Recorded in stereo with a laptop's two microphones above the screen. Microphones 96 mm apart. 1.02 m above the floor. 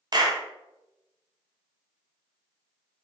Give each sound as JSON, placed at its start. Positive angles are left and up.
{"t": 0.1, "sound": "a clap", "side_deg": -40, "distance_m": 0.9}